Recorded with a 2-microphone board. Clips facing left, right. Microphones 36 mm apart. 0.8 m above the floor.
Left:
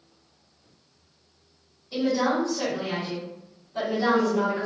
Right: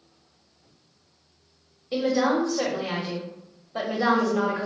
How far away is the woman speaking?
About 1.0 m.